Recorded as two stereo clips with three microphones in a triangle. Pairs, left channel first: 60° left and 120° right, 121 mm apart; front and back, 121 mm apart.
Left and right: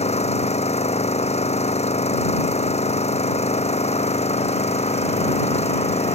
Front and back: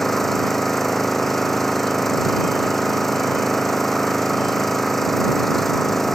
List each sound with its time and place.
0.0 s an engine running: 90° left